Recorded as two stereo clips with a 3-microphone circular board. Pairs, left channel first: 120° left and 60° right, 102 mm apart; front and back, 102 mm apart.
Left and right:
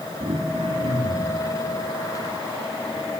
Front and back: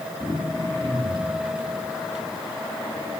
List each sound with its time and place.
0.2 s throat clearing: 70° right, 9 m